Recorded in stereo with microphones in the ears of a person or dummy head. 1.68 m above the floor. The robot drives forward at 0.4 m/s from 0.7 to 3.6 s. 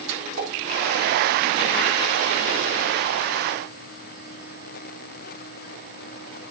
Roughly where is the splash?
Right.